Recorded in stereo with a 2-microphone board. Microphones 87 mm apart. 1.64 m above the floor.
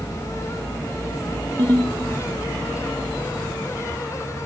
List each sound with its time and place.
1.6 s a ringtone: 50° right (ahead or behind), 1.3 m